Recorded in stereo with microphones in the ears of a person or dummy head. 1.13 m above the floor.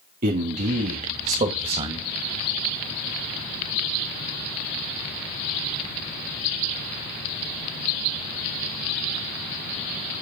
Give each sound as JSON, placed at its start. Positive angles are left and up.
{"t": 0.2, "sound": "a man speaking", "side_deg": -45, "distance_m": 1.8}